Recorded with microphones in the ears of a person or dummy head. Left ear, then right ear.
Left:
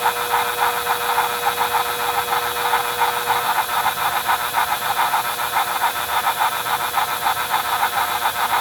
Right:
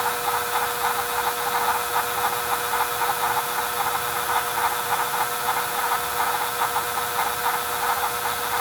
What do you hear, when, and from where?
Only background noise.